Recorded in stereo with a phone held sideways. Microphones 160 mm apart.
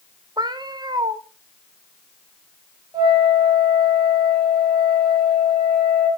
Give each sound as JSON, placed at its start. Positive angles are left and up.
{"t": 0.4, "sound": "a cat meowing", "side_deg": -25, "distance_m": 0.7}
{"t": 2.9, "sound": "a flute", "side_deg": -20, "distance_m": 4.5}